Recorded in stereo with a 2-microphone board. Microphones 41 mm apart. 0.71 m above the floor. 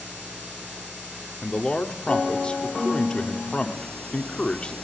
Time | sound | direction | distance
1.4 | a man speaking | 25° left (ahead or behind) | 1.9 m